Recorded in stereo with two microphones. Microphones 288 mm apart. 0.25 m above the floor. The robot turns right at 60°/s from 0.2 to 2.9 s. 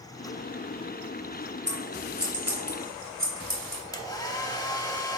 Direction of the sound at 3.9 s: 15° left (ahead or behind).